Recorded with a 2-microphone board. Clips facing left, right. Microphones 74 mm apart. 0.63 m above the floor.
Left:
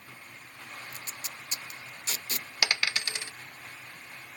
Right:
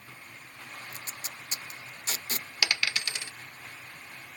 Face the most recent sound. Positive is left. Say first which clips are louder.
# left 1 dB
turn(degrees=20)  # may be behind; listen again after turning